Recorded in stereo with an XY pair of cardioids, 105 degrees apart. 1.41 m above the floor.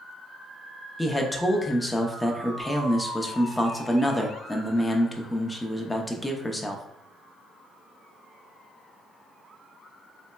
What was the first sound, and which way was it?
A man speaking, 10° left.